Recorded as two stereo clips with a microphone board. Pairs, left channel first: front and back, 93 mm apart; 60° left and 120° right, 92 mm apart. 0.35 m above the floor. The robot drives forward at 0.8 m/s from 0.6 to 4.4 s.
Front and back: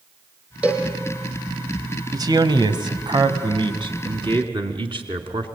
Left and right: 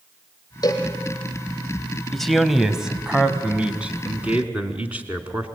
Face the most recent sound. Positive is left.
turn(degrees=165)